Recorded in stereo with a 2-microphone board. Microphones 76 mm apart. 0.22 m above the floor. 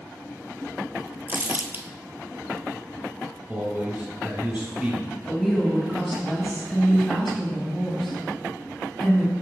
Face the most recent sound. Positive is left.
turn(degrees=0)  # may be behind; listen again after turning